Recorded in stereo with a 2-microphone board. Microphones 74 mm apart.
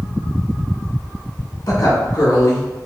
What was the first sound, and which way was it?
A woman speaking, 65° left (ahead or behind).